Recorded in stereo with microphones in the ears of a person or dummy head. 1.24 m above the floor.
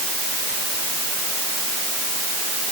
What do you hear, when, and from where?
Only background noise.